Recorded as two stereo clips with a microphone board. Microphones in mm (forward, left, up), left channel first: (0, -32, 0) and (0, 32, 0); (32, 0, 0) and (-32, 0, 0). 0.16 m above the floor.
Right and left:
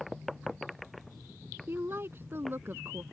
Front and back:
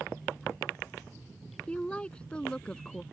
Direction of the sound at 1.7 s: 65° left.